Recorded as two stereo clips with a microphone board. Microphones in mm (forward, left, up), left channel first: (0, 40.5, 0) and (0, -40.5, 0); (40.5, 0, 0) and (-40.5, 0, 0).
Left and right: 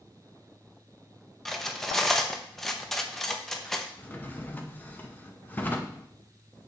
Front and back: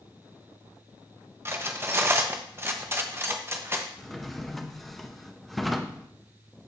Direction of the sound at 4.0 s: 85° left.